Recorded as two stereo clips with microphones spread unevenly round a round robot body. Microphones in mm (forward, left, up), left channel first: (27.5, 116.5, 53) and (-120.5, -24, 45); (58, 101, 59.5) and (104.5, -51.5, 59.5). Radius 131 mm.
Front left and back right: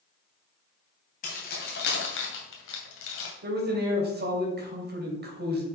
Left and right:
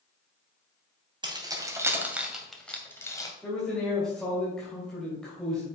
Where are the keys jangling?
10° right, 2.5 m; by 3.3 s 40° left, 2 m.